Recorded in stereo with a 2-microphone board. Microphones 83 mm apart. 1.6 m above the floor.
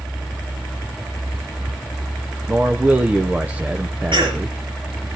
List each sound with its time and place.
2.5 s a man speaking: 20° right (ahead or behind), 0.7 m
4.1 s a cough: 80° right, 4.5 m